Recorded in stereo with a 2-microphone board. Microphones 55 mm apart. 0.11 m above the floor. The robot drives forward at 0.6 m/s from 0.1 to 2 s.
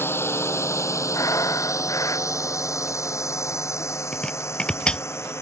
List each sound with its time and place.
0.0 s a drone: 45° left (ahead or behind); by 5.4 s 55° left (ahead or behind)
1.1 s breathing: 80° left
4.1 s chopping: 15° left (ahead or behind)